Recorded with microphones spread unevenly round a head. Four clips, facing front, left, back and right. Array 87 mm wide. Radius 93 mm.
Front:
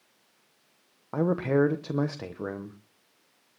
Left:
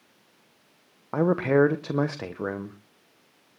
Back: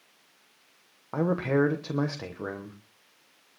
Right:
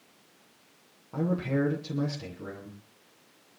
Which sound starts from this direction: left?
A man speaking, at 1.1 s.